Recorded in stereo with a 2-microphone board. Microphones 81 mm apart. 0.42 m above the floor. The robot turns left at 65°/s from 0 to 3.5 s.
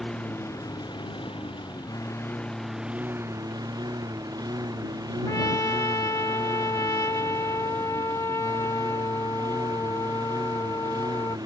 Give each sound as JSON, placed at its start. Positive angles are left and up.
{"t": 0.0, "sound": "a lawn mower", "azimuth_deg": 175}
{"t": 5.3, "sound": "a trumpet", "side_deg": 45}